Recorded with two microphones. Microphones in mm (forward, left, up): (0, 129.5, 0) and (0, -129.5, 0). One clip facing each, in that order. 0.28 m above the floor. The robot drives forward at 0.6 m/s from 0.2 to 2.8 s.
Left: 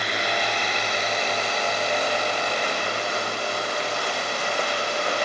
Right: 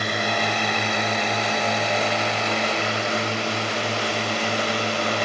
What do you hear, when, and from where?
0.0 s a drone: 50° right (ahead or behind); by 5.2 s 75° right (ahead or behind)